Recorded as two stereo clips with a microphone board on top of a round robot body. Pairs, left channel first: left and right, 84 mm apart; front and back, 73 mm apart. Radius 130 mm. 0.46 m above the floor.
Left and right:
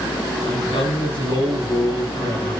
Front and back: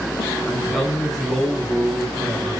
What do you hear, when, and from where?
0.5 s a man speaking: 85° left, 7 m